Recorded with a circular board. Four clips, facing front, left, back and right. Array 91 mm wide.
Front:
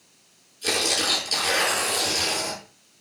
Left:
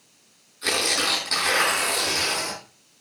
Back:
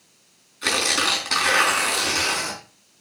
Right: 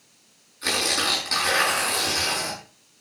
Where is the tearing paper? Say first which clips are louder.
Even, back 3 dB; 175° right, 4.5 m.